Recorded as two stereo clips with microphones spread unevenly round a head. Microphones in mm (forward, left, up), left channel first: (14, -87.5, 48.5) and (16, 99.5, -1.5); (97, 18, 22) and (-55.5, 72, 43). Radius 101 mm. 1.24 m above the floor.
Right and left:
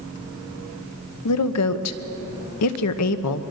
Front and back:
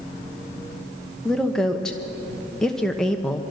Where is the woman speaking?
105° right, 1.0 m.